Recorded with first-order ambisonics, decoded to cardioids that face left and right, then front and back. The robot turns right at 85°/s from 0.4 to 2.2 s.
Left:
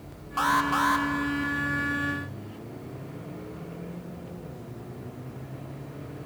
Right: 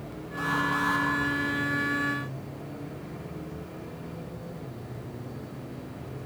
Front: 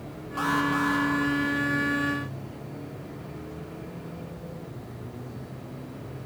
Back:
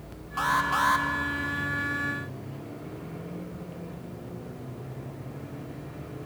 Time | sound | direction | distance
0.4 | an alarm | 100° left | 1.9 m